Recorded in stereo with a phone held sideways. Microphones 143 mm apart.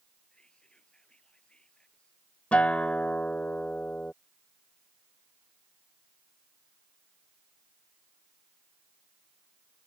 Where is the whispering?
5° left (ahead or behind).